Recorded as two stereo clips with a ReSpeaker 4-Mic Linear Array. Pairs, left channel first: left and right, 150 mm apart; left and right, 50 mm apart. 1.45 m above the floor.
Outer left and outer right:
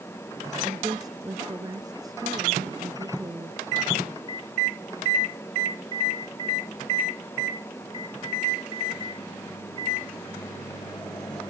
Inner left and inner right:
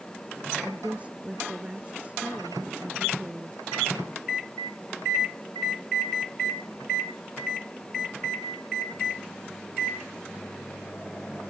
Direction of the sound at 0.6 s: 25° right (ahead or behind).